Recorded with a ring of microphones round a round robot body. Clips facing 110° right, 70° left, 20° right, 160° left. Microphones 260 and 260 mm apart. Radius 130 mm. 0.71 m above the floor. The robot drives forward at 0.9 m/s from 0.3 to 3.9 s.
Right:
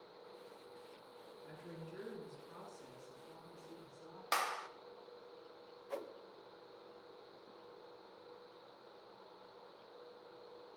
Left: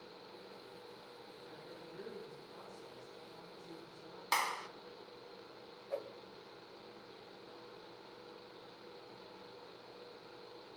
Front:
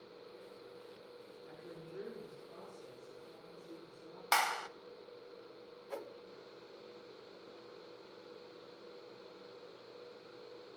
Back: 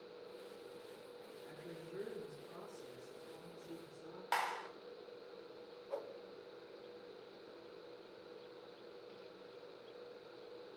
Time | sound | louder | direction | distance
1.4 | a woman speaking | right 3 dB, even | 110° right | 7.5 m
4.3 | a clap | even, front 5 dB | 20° right | 0.8 m
5.9 | a whoosh | left 3 dB, even | 60° right | 0.7 m